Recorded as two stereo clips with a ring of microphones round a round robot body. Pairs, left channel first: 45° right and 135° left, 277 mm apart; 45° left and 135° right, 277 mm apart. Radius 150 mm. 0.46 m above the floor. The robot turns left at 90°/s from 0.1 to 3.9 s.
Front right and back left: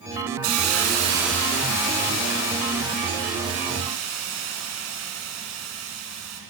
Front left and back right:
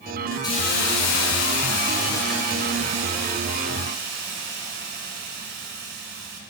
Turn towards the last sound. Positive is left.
turn(degrees=170)